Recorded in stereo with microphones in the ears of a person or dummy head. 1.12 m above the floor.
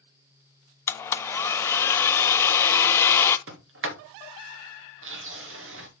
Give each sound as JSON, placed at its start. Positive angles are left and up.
{"t": 0.9, "sound": "a blender", "side_deg": 15, "distance_m": 0.7}
{"t": 3.5, "sound": "a sliding door", "side_deg": -60, "distance_m": 1.2}